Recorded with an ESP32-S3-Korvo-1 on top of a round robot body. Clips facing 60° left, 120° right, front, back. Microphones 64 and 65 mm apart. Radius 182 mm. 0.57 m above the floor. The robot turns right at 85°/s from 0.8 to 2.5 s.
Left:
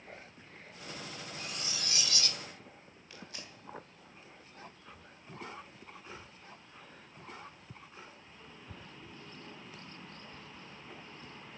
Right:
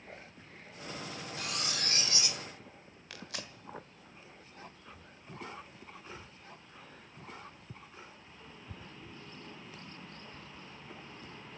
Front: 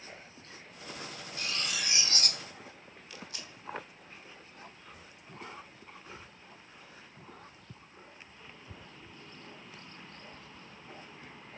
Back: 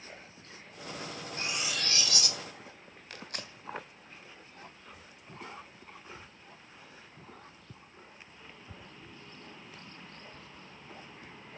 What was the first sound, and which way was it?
Cutlery clinking, 120° right.